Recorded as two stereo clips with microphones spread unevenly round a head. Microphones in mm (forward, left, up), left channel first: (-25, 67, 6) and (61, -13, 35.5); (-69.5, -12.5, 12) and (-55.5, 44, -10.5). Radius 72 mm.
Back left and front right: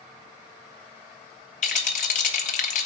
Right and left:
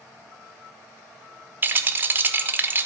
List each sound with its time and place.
1.6 s a rattle: 140° left, 1.4 m